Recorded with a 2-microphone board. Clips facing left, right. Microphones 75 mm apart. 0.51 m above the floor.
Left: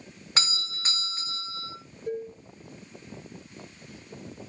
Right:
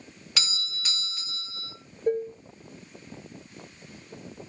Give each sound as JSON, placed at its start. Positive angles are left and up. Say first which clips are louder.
{"t": 0.4, "sound": "a doorbell", "louder": "left 3 dB", "side_deg": 30, "distance_m": 2.0}
{"t": 2.1, "sound": "dishes clattering", "louder": "right 7 dB", "side_deg": -50, "distance_m": 1.5}